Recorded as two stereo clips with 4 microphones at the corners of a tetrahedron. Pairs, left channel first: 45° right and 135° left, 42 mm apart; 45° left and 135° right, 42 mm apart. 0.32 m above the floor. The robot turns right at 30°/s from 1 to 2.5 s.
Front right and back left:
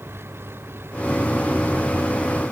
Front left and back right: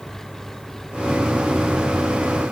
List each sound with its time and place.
0.0 s an engine running: 125° left; by 2.5 s 170° left